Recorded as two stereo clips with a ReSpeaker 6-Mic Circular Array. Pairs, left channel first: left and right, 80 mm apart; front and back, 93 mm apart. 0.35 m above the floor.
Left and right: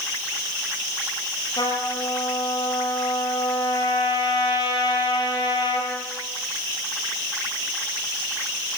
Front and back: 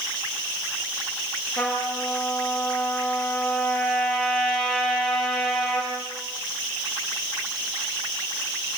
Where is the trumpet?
80° left, 7 m.